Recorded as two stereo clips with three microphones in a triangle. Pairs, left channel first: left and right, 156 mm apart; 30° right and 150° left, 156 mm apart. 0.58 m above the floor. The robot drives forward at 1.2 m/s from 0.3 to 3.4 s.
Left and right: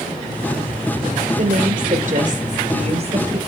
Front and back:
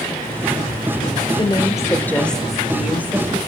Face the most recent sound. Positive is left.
turn(degrees=-135)